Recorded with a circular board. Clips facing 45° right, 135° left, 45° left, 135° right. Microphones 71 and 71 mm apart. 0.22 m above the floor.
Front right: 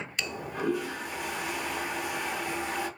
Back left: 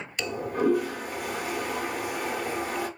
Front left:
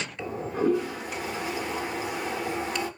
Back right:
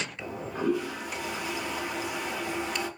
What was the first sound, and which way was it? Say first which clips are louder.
A toilet flushing: back left 7 dB, front left 6 dB; 95° left.